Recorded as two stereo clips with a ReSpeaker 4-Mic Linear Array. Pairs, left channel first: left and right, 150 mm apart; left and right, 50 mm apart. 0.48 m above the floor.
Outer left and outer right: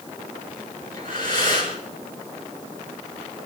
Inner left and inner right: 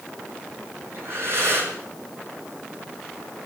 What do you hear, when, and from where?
0.9 s breathing: 60° right (ahead or behind), 5.5 m